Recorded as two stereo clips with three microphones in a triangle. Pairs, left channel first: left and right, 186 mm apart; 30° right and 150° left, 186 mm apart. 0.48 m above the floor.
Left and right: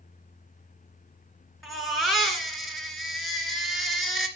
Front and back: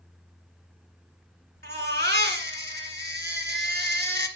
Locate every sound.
1.6 s a baby crying: straight behind, 2 m